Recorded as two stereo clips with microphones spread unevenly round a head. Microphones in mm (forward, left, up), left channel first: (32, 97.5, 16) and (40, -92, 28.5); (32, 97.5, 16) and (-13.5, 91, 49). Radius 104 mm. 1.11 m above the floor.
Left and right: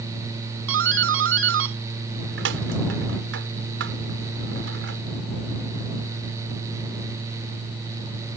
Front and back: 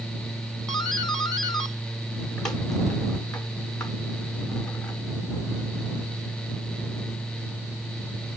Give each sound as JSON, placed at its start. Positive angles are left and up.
{"t": 0.7, "sound": "a doorbell", "azimuth_deg": -65}